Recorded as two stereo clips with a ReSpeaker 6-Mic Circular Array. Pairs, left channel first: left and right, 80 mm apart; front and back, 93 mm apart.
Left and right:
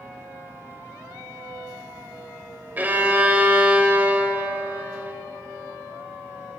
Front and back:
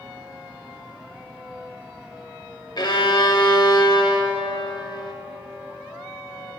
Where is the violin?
25° right, 0.6 m.